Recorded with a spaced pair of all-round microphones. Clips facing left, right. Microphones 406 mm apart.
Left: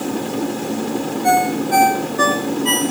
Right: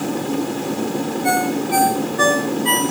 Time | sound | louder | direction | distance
1.2 | a ringtone | left 3 dB | 60° left (ahead or behind) | 4.5 m